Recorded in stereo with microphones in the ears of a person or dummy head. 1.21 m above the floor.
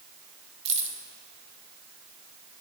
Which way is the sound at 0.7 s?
30° right (ahead or behind).